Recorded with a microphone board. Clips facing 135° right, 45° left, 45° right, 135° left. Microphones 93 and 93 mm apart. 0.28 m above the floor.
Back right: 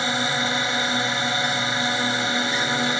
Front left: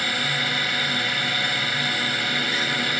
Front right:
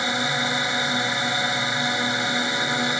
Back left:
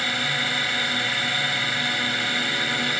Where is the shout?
I don't hear a shout.